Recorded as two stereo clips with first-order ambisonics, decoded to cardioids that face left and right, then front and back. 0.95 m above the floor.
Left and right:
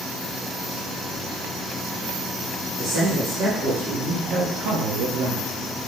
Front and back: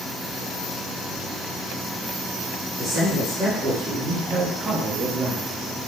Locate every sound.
2.8 s a man speaking: 95° right, 2.5 m; by 5.5 s 135° right, 0.5 m